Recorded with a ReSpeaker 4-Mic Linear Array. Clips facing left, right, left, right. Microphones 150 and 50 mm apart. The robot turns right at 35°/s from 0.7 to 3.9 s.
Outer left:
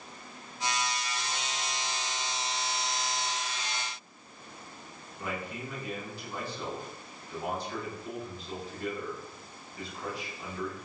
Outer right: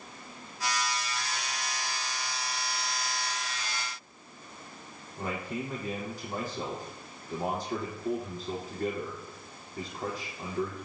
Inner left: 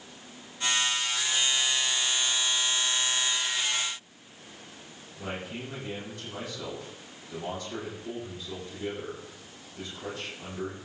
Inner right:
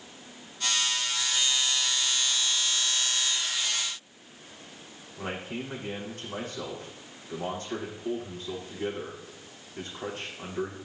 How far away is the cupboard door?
No cupboard door in this recording.